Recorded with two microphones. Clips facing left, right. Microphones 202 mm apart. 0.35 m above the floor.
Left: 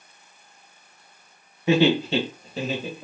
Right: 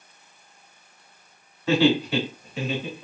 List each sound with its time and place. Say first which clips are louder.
1.7 s laughter: left 1 dB; 15° left (ahead or behind), 1.1 m; by 3.0 s 45° left (ahead or behind), 1.4 m